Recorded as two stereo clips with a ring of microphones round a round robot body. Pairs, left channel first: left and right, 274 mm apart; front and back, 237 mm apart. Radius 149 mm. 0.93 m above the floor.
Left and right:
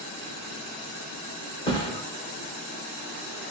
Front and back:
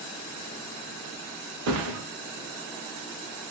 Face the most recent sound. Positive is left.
turn(degrees=165)